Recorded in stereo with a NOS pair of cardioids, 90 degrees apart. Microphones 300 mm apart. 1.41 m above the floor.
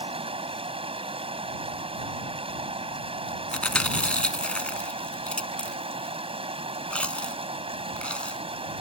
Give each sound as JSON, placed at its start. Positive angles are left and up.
{"t": 0.0, "sound": "running water", "azimuth_deg": -20}
{"t": 3.5, "sound": "chewing", "azimuth_deg": 5}